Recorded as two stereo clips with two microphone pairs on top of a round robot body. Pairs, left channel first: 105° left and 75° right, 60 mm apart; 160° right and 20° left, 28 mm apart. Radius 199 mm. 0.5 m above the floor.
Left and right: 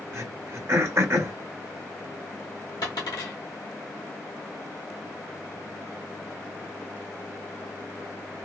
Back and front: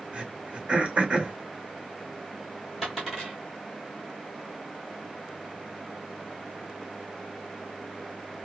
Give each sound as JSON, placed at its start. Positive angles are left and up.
{"t": 0.1, "sound": "throat clearing", "azimuth_deg": -35, "distance_m": 1.4}
{"t": 2.8, "sound": "a dropped coin", "azimuth_deg": 105, "distance_m": 0.7}